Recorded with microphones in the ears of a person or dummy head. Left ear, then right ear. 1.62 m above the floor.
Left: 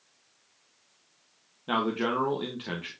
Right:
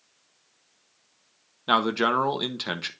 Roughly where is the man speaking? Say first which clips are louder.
Right 6 dB; right.